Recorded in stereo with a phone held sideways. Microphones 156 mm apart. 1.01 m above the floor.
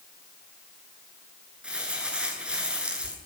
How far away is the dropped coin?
No dropped coin in this recording.